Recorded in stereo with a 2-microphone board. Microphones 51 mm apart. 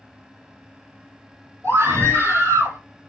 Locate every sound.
1.6 s a scream: 70° right (ahead or behind), 4.5 m; by 2.8 s 65° right (ahead or behind), 4 m